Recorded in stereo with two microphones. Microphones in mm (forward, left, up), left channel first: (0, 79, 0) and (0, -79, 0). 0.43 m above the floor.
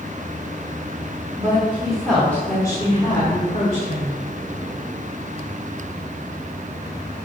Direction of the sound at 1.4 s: 20° right (ahead or behind).